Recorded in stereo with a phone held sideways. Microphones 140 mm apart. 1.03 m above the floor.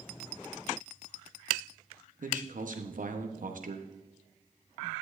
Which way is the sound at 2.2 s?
70° right (ahead or behind).